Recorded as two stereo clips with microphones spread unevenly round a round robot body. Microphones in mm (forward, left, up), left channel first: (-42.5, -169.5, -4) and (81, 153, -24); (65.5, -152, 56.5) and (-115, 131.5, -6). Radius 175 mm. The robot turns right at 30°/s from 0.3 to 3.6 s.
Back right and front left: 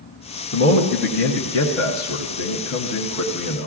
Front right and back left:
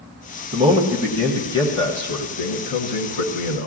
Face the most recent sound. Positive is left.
turn(degrees=-80)